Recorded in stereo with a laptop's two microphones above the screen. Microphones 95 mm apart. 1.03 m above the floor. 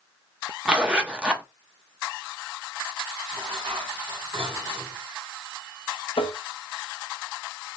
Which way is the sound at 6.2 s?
70° left (ahead or behind).